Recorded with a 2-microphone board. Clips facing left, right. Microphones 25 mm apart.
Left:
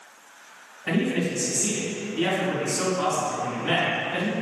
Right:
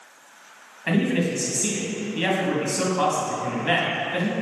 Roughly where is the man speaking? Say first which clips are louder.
Right 2 dB; right.